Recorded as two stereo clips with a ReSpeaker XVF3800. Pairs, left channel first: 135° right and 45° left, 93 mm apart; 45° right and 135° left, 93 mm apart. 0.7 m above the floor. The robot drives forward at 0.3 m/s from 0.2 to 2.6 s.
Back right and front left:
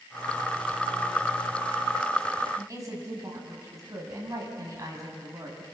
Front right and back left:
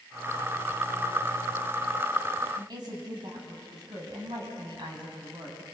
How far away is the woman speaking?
About 5.5 m.